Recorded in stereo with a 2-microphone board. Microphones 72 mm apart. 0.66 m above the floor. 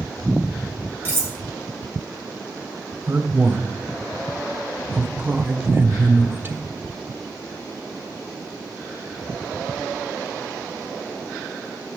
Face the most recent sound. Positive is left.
turn(degrees=-30)  # may be behind; listen again after turning